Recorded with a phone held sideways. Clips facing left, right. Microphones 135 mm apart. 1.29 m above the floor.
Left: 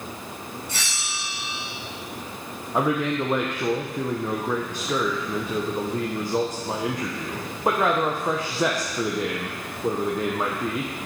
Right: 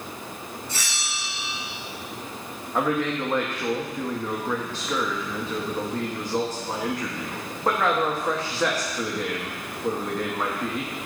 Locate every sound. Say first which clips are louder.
0.7 s a bell: even; 75° left (ahead or behind), 4 m
2.7 s a man speaking: left 1 dB; 15° left (ahead or behind), 0.9 m